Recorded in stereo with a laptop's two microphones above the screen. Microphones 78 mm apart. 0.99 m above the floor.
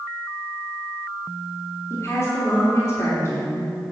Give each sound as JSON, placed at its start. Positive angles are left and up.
{"t": 1.9, "sound": "a woman speaking", "side_deg": 40, "distance_m": 2.5}